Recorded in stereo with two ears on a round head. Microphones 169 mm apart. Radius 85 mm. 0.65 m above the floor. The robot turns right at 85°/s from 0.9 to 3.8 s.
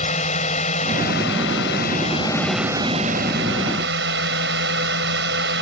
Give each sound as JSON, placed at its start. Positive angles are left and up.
{"t": 0.0, "sound": "a drone", "azimuth_deg": 40}